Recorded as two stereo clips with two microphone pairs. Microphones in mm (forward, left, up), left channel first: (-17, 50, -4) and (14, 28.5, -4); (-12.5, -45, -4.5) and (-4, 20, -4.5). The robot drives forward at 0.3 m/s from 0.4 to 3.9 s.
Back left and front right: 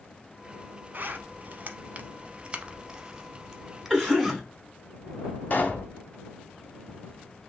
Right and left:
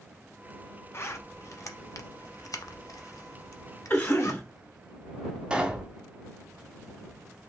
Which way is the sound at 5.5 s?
155° left.